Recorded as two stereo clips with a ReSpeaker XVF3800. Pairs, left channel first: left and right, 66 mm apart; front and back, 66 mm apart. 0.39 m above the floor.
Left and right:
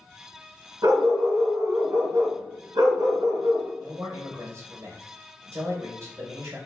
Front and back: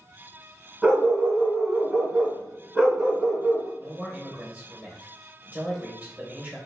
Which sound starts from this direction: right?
A dog barking, at 0.8 s.